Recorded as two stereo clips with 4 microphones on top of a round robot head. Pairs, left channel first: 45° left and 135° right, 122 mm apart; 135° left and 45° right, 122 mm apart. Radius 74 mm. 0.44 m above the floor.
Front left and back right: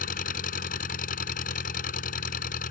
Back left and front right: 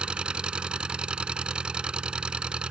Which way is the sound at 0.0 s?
40° left.